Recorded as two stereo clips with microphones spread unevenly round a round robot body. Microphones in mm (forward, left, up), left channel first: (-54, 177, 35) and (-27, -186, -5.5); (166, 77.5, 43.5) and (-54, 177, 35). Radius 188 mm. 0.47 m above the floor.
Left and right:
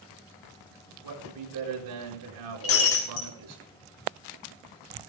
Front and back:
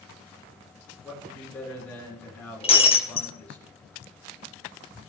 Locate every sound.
1.0 s a man speaking: 110° right, 5 m
2.6 s breaking glass: 40° left, 1.9 m